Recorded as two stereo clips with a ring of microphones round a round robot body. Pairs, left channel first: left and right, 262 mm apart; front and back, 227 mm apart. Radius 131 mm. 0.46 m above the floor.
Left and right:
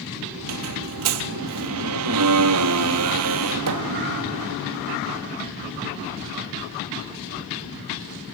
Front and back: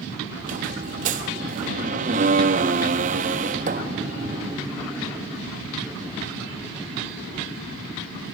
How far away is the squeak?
About 1.0 m.